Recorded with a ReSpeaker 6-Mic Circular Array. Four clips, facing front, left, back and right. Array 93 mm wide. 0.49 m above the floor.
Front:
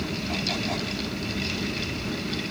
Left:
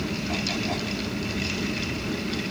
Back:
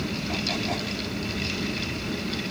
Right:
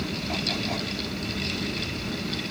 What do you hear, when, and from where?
Only background noise.